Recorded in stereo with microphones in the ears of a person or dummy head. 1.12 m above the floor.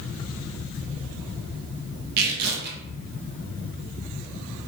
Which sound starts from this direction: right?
Tearing paper, at 2.2 s.